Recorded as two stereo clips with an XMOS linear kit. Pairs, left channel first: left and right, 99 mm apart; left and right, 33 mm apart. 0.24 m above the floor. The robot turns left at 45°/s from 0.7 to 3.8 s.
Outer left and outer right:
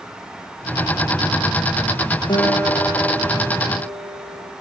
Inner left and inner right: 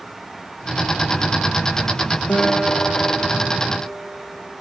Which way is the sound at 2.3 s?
55° left.